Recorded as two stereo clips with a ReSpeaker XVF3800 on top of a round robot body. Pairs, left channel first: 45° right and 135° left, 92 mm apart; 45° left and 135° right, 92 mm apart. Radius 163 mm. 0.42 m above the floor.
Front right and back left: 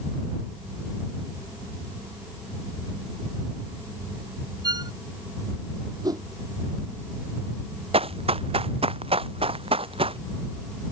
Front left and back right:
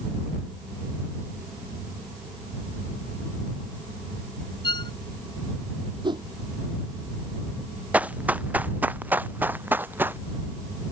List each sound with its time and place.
4.6 s a violin: 85° left
6.0 s a whoosh: 175° right
7.9 s running footsteps: 150° left; by 10.2 s 155° left